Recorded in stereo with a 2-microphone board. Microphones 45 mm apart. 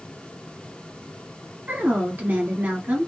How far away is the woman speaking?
About 2 m.